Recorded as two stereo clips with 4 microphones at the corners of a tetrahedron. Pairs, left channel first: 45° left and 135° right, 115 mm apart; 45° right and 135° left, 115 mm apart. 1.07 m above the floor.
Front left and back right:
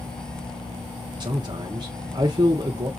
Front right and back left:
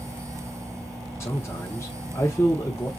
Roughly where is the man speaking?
Right.